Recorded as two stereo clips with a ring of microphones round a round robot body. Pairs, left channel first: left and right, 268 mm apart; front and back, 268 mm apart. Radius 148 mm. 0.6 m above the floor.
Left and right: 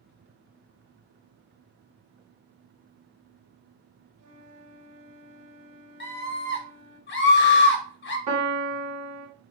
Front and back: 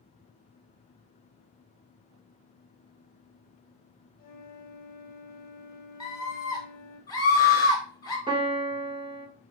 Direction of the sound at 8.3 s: 110° right.